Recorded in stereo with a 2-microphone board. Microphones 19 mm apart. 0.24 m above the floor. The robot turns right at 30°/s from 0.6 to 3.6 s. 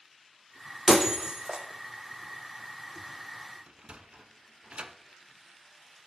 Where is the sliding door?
65° right (ahead or behind), 0.7 m.